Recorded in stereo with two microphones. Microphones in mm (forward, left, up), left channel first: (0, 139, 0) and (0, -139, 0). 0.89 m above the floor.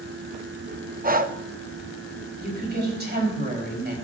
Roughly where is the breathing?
Right.